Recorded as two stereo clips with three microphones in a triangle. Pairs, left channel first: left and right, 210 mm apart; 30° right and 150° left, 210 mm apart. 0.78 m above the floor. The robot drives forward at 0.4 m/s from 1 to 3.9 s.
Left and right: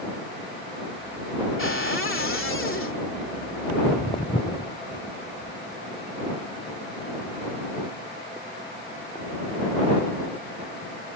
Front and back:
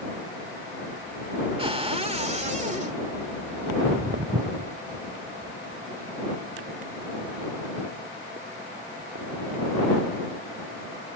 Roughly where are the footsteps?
Behind left.